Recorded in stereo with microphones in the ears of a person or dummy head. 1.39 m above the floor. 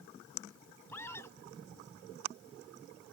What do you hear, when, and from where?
0.9 s a scream: 15° left (ahead or behind)